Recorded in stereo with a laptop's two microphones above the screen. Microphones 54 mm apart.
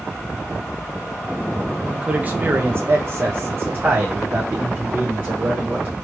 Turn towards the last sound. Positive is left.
turn(degrees=-30)  # may be behind; listen again after turning